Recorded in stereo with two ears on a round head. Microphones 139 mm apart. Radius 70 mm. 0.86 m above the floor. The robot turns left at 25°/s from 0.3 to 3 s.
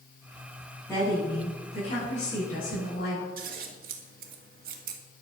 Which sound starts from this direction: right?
Scissors, at 3.4 s.